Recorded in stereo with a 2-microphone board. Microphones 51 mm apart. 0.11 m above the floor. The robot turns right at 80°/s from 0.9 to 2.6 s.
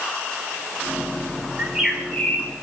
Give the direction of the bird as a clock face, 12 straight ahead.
1 o'clock.